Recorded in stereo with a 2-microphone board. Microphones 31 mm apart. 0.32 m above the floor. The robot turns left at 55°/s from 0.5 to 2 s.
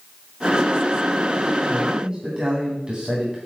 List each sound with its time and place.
1.7 s a man speaking: 45° right (ahead or behind), 3 m; by 3.4 s 30° right (ahead or behind), 3 m